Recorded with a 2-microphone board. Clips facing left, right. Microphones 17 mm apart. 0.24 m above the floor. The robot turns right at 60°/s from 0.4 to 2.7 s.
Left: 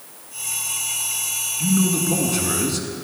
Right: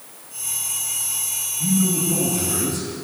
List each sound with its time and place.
1.6 s a man speaking: 75° left, 1.9 m; by 2.9 s 145° left, 1.9 m